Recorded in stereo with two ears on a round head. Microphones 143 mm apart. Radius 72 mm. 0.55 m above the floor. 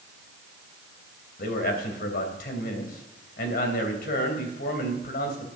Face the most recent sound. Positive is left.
turn(degrees=65)  # may be behind; listen again after turning